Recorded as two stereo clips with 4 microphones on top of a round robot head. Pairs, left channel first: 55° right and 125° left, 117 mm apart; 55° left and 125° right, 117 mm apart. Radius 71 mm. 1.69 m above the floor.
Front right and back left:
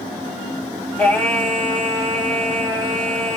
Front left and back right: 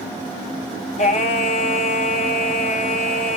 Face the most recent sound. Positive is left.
turn(degrees=25)